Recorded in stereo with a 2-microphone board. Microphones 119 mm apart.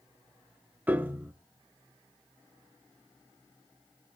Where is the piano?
15° right (ahead or behind), 0.8 m.